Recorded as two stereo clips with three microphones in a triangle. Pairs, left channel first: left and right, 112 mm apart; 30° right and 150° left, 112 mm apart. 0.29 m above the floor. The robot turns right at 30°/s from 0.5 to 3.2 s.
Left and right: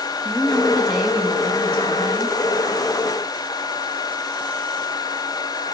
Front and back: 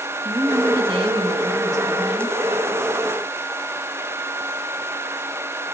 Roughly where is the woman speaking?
Behind.